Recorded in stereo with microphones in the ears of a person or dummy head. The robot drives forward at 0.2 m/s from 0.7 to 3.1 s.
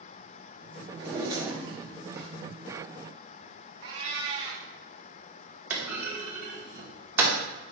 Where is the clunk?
10° right (ahead or behind), 0.8 m.